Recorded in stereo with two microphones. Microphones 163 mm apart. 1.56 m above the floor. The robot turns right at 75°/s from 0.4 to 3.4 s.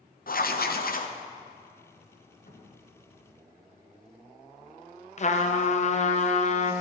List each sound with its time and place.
0.3 s writing: 70° left, 0.7 m; by 1.1 s 125° left, 0.7 m
2.5 s a cupboard door: 95° left, 2.5 m; by 2.9 s 125° left, 2.5 m
5.2 s a trumpet: 45° left (ahead or behind), 0.7 m